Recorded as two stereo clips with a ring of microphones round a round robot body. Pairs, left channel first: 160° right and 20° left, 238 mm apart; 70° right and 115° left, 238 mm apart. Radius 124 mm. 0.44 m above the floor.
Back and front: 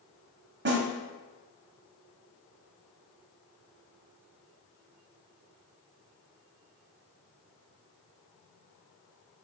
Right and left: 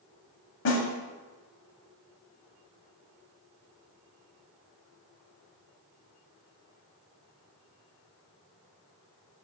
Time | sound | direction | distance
0.7 | a snare drum | 25° right | 1.1 m